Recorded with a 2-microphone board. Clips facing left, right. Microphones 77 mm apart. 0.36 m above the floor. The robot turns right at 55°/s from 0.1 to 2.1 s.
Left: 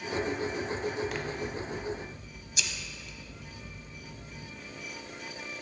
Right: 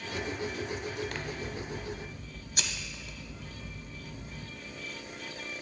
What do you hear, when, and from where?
1.1 s scissors: 175° left, 0.5 m; by 4.5 s 130° right, 0.5 m